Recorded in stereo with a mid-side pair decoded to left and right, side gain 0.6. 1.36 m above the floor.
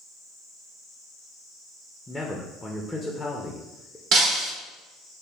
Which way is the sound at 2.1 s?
10° left.